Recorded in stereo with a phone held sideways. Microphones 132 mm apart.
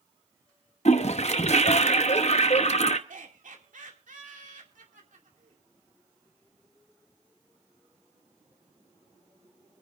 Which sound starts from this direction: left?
A toilet flushing, at 0.8 s.